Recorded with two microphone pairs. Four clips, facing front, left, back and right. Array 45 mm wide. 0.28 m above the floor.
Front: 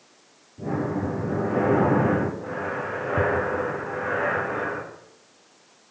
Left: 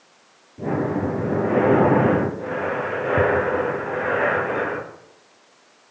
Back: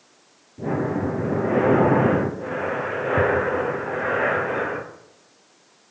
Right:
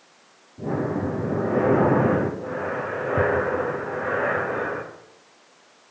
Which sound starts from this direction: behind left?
Breathing, at 0.6 s.